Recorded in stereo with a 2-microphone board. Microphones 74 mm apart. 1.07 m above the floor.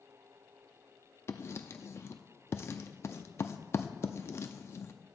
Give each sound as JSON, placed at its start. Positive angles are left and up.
{"t": 1.3, "sound": "writing", "side_deg": 40, "distance_m": 0.6}